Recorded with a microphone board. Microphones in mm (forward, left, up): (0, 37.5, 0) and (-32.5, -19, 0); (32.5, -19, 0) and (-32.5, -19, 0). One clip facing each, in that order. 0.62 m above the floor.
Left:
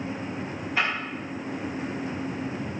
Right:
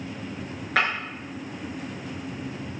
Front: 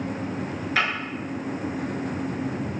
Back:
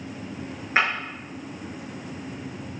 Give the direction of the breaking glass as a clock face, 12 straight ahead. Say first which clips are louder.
Right 3 dB, back 2 dB; 4 o'clock.